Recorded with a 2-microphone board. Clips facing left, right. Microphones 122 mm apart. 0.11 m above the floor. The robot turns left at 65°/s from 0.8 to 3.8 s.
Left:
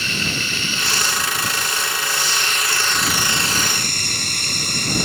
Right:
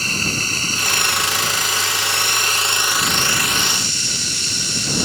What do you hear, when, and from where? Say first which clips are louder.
0.0 s running water: right 1 dB; 35° right; by 5.1 s 130° left